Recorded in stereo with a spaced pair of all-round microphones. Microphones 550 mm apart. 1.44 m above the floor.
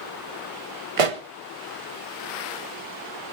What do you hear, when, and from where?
1.0 s a pop: 75° right (ahead or behind), 1.0 m